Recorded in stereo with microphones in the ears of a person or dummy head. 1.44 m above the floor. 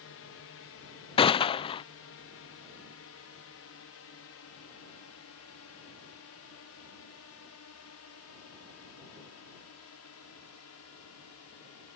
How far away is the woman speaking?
No woman speaking in this recording.